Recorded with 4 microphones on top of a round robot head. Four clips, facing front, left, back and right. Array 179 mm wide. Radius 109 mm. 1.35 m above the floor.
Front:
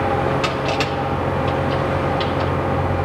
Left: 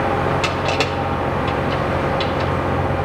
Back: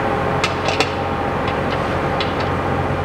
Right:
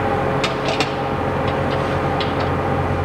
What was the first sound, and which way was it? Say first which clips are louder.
Crushing: even, back 1 dB; straight behind.